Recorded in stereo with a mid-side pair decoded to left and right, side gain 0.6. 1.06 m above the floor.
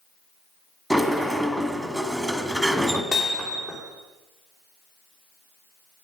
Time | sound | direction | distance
0.9 | a sliding door | straight ahead | 1.5 m
3.1 | hammering | 45° left | 3 m